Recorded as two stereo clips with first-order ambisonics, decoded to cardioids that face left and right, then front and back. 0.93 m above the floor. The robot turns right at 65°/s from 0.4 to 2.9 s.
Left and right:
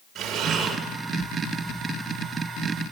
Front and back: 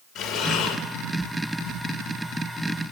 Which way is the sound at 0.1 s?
35° right.